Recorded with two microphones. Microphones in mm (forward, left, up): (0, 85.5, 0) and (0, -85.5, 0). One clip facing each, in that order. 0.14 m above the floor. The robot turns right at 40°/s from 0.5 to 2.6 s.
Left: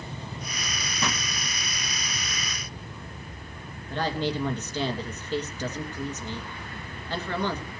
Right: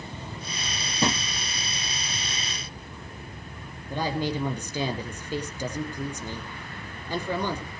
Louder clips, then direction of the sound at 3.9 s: Even; 10° right (ahead or behind).